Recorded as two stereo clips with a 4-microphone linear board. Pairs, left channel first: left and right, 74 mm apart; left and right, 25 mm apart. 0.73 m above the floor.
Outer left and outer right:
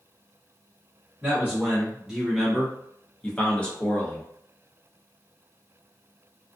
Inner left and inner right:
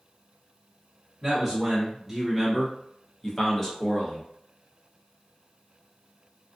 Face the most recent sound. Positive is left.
turn(degrees=20)  # may be behind; listen again after turning